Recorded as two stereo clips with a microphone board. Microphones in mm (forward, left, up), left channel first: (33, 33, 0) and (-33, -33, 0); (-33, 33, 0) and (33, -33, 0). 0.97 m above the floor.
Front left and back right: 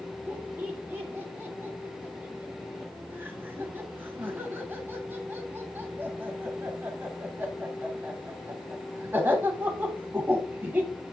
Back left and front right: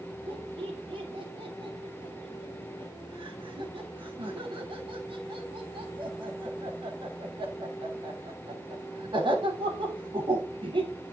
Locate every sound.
0.3 s laughter: 70° right, 3 m